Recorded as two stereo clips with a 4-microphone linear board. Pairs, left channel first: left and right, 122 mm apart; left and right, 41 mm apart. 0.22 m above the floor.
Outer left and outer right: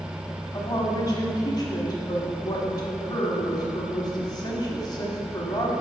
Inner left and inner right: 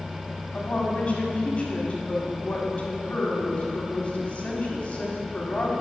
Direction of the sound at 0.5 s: 35° left (ahead or behind).